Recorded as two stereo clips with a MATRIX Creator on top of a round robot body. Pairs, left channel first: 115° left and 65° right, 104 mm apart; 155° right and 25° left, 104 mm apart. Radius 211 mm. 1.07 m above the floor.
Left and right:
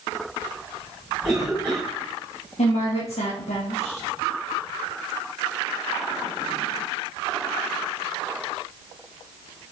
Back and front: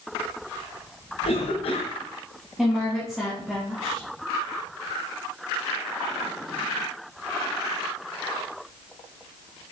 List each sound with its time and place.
1.2 s a cough: 150° right, 1.5 m
2.6 s a woman speaking: 110° left, 1.8 m